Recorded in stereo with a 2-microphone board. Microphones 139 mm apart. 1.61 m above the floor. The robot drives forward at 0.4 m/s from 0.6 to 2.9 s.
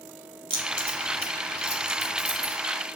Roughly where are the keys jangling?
Right.